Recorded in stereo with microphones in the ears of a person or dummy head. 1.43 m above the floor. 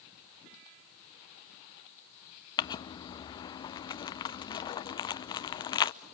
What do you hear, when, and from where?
2.6 s crumpling: 30° left (ahead or behind), 0.7 m